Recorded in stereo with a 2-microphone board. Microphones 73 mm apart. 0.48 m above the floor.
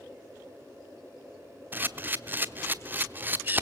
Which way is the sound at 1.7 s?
25° right (ahead or behind).